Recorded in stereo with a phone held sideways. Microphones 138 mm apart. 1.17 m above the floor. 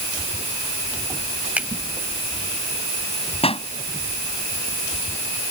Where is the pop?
45° left (ahead or behind).